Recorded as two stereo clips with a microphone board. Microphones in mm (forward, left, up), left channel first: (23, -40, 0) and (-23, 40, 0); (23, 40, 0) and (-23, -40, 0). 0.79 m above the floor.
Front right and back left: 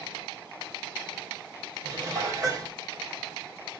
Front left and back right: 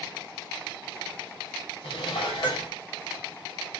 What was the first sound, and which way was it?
Dishes clattering, 65° left.